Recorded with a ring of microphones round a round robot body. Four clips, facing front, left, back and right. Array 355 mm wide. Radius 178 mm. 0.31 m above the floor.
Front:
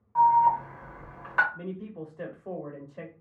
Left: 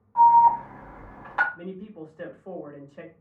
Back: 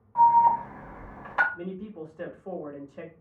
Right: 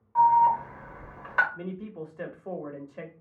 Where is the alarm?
50° right, 2 m.